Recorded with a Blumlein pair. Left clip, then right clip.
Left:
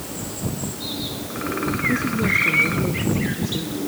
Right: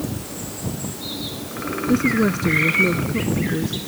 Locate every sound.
1.9 s a woman speaking: 20° right